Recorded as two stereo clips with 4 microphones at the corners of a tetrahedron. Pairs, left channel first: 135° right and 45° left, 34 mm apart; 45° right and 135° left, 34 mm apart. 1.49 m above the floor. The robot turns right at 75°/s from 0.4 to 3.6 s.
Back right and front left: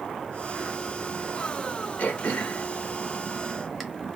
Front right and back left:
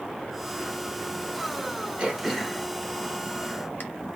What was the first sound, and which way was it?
Throat clearing, 165° right.